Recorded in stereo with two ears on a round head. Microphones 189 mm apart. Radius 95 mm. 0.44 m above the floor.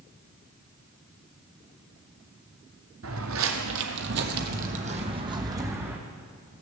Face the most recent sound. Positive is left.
turn(degrees=-10)  # may be behind; listen again after turning